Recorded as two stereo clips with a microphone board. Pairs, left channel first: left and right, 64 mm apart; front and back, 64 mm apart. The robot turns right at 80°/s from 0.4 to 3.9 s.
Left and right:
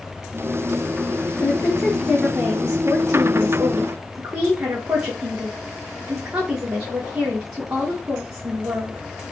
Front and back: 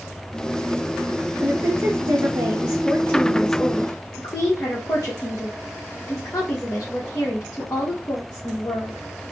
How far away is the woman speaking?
About 1.2 m.